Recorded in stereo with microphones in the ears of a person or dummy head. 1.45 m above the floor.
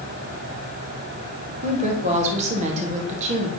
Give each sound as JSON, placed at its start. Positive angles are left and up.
{"t": 1.6, "sound": "a woman speaking", "side_deg": -45, "distance_m": 2.0}